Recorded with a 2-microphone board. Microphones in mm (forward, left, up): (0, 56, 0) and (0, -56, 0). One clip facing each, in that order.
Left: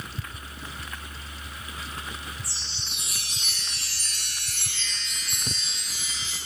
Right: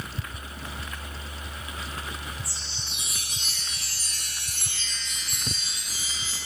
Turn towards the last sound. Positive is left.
turn(degrees=75)  # may be behind; listen again after turning